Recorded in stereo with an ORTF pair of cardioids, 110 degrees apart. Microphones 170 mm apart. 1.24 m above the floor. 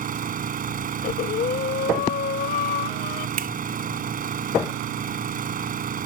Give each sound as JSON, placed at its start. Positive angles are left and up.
{"t": 0.0, "sound": "an engine running", "azimuth_deg": -55}
{"t": 1.0, "sound": "breathing", "azimuth_deg": 60}
{"t": 3.4, "sound": "a finger snap", "azimuth_deg": -60}